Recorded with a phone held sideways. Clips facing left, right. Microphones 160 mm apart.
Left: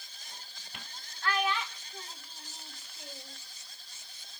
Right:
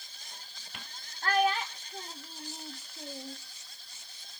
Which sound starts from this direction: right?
A child speaking, at 1.2 s.